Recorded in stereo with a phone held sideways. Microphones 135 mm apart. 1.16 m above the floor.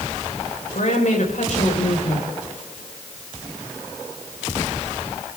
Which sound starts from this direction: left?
A woman speaking, at 0.7 s.